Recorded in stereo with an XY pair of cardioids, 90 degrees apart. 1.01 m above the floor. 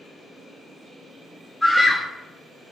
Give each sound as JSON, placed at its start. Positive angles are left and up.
{"t": 1.6, "sound": "a scream", "azimuth_deg": 15, "distance_m": 1.4}